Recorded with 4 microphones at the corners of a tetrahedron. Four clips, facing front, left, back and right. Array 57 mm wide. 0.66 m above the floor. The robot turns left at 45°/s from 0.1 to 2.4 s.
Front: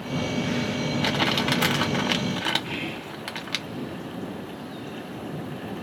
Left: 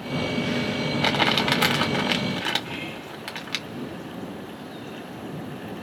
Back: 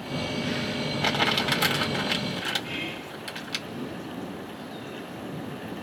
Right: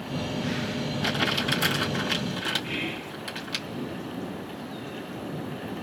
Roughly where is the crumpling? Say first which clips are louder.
Left 5 dB, even; left.